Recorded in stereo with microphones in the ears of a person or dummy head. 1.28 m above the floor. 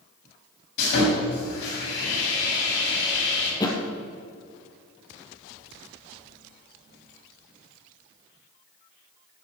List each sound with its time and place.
0.8 s sawing: 60° left (ahead or behind), 6 m
3.6 s a thud: 20° left (ahead or behind), 2.5 m